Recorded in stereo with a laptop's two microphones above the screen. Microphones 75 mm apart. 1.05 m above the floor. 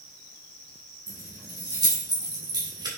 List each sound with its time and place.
1.1 s keys jangling: 60° right (ahead or behind), 2.5 m; by 2.9 s 75° right (ahead or behind), 1.8 m